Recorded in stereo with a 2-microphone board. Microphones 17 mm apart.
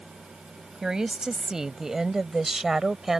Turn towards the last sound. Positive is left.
turn(degrees=-20)  # may be behind; listen again after turning